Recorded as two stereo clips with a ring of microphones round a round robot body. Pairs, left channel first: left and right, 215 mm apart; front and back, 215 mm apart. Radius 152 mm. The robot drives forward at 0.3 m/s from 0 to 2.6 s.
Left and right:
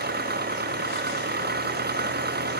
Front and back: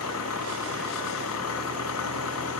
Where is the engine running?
50° right.